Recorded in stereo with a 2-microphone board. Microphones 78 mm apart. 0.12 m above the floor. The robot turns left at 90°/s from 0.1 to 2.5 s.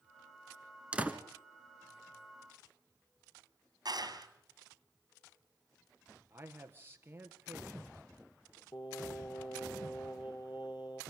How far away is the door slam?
About 1.4 m.